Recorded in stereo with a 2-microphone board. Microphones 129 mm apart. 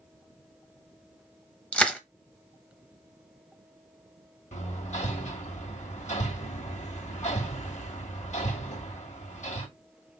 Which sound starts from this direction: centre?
Crushing, at 1.7 s.